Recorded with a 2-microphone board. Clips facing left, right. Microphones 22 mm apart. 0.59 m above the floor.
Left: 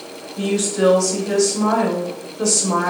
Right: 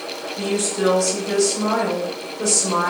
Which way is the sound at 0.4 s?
40° left (ahead or behind).